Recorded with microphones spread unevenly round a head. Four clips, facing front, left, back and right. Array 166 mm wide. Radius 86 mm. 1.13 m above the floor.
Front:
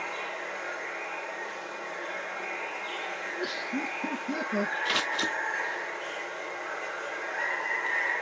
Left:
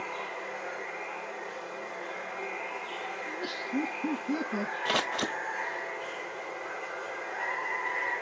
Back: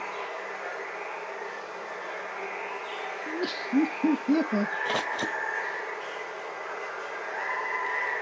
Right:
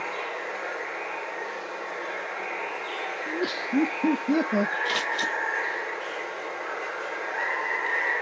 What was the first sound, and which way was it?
Running water, 95° right.